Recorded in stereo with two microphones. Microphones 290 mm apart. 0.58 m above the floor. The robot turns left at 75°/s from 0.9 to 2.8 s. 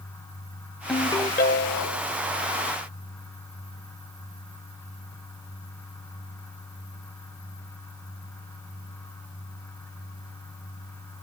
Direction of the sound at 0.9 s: Straight behind.